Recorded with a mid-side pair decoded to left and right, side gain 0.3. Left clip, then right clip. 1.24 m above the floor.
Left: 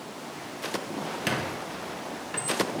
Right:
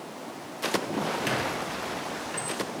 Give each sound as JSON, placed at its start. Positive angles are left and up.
{"t": 1.3, "sound": "a squeak", "azimuth_deg": 30, "distance_m": 1.1}